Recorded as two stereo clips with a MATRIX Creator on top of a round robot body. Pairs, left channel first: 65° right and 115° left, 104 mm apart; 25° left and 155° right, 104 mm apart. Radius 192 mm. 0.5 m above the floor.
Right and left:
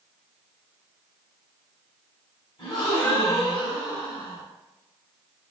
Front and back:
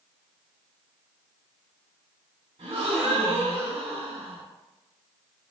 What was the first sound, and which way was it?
A gasp, 125° right.